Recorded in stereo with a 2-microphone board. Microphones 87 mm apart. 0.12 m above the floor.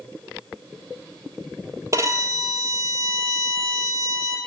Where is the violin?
40° right (ahead or behind), 0.5 m.